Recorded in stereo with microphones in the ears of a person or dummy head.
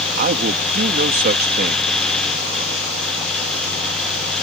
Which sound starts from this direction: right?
A man speaking, at 0.2 s.